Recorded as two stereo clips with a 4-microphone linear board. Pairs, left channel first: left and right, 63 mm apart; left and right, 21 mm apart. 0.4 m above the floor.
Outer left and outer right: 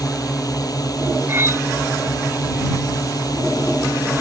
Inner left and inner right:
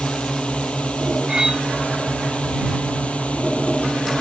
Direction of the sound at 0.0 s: 75° left (ahead or behind).